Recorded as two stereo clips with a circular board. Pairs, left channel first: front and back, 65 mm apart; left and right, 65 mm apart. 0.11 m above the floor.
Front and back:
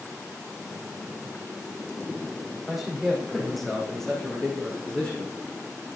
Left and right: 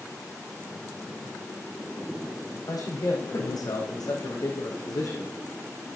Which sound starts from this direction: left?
A man speaking, at 2.7 s.